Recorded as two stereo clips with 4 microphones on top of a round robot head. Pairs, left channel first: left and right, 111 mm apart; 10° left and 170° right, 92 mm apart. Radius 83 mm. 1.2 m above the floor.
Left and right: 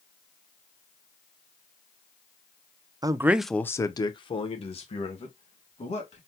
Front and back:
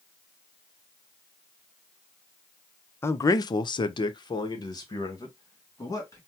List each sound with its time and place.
3.0 s a man speaking: 45° right, 0.6 m; by 6.2 s 65° left, 2 m